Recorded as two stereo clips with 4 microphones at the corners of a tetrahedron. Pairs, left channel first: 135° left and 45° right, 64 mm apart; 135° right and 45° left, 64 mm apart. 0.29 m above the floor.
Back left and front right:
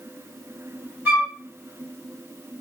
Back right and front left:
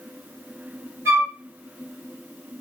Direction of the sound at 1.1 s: 15° left.